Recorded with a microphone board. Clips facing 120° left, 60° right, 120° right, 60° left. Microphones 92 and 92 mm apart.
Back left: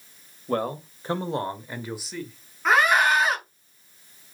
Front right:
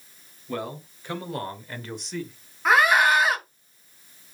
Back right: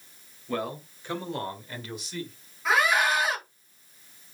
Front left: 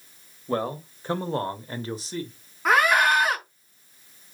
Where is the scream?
25° left, 5.5 m.